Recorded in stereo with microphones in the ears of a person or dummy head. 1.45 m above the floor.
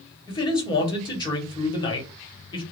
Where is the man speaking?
25° left (ahead or behind), 1.2 m.